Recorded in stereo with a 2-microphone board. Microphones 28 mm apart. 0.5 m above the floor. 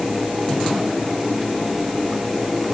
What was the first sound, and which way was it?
Only background noise.